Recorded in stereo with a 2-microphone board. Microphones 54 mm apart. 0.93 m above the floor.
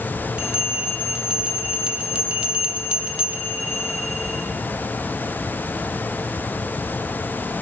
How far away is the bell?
About 0.7 m.